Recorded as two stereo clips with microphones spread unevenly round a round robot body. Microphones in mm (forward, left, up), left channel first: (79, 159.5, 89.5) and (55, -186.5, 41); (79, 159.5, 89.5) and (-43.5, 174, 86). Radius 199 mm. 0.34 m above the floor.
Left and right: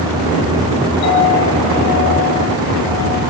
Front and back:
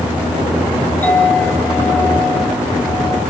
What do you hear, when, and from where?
1.0 s a clink: 70° left, 6 m